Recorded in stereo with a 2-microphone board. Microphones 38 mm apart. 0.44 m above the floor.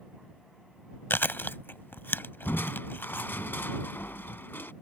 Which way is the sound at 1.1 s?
65° left (ahead or behind).